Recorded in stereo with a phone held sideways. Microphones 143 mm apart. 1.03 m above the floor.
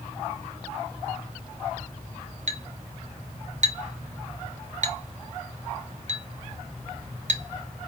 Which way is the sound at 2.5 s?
55° right (ahead or behind).